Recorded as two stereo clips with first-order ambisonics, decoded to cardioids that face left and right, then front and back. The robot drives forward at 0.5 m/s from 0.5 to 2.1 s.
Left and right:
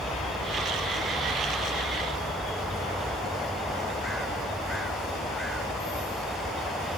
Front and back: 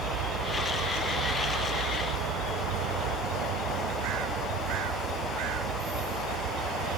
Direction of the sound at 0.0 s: Straight behind.